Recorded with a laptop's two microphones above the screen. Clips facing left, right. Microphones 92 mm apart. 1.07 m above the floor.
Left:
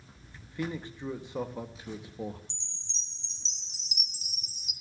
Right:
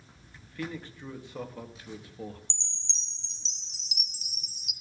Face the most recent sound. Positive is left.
turn(degrees=-65)  # may be behind; listen again after turning